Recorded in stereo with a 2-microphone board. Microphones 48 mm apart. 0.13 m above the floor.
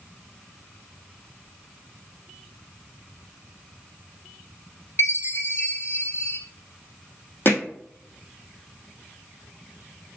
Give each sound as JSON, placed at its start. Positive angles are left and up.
{"t": 5.0, "sound": "a chime", "side_deg": 55, "distance_m": 1.1}
{"t": 7.5, "sound": "hammering", "side_deg": 50, "distance_m": 1.8}